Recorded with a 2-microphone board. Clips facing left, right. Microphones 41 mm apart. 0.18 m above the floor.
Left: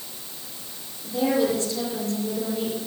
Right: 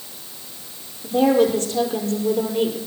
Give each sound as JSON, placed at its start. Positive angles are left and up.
{"t": 1.0, "sound": "a woman speaking", "side_deg": -40, "distance_m": 5.5}